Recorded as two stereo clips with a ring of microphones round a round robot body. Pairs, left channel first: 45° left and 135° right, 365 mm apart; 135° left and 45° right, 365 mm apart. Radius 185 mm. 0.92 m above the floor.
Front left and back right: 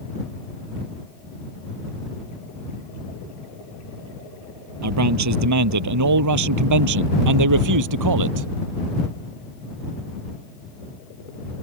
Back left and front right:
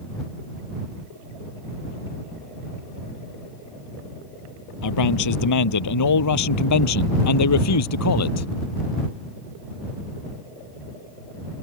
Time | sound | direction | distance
4.8 | a man speaking | 175° left | ?